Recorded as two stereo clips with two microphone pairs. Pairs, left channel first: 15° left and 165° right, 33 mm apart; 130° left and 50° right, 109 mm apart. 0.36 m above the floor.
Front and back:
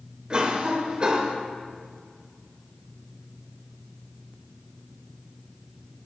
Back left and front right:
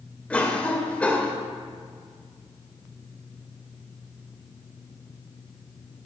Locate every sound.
0.3 s a cough: 170° right, 0.9 m